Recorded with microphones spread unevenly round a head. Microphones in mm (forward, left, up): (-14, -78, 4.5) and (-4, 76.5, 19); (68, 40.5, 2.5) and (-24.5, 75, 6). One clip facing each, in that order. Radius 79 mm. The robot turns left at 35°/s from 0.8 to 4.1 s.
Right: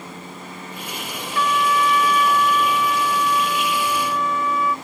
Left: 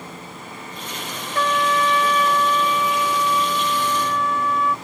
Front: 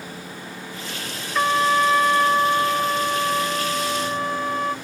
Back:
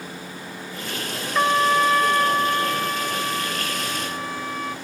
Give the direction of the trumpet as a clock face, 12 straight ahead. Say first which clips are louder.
Even, even; 9 o'clock.